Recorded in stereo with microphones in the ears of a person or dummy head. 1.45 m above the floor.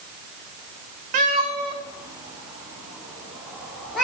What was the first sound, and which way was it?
A cat meowing, 45° right (ahead or behind).